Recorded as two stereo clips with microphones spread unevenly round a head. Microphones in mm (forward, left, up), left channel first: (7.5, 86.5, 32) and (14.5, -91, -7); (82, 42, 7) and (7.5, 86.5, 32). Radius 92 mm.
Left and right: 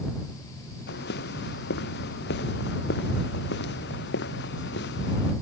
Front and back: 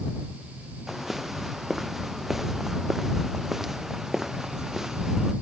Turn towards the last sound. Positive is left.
turn(degrees=65)